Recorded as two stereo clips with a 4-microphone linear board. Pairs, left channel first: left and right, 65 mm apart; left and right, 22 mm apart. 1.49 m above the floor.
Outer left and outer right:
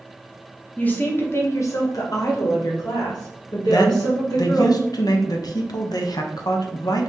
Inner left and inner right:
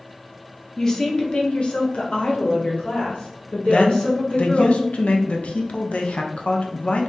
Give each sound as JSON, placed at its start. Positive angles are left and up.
{"t": 0.8, "sound": "a woman speaking", "side_deg": 25, "distance_m": 1.0}
{"t": 3.7, "sound": "a man speaking", "side_deg": 75, "distance_m": 0.6}